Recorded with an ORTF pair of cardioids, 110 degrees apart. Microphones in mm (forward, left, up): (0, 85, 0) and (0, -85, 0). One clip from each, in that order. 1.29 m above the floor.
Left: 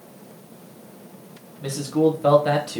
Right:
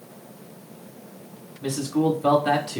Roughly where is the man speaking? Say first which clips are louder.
Left 3 dB; ahead.